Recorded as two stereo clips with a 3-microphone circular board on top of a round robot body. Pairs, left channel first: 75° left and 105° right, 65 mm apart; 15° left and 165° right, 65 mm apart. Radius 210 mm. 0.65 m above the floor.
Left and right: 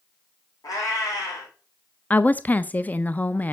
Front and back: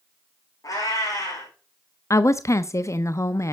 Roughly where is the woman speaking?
Ahead.